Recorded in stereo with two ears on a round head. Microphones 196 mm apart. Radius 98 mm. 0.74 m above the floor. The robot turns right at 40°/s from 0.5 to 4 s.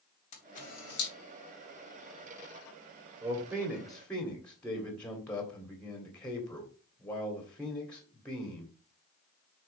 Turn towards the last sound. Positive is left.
turn(degrees=5)